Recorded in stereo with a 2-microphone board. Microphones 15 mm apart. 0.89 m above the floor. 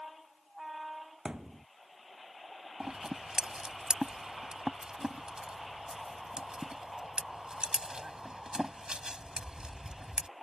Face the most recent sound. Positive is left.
turn(degrees=-80)